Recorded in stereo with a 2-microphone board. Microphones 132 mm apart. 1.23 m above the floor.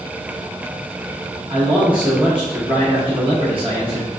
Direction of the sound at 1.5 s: 40° right (ahead or behind).